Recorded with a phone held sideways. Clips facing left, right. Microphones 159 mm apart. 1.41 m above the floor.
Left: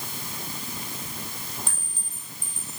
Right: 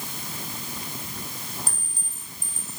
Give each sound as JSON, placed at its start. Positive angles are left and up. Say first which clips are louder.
{"t": 1.7, "sound": "a clink", "louder": "right 1 dB", "side_deg": -35, "distance_m": 5.0}